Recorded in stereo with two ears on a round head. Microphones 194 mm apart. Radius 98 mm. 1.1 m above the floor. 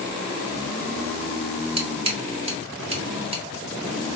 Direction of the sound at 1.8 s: 30° right (ahead or behind).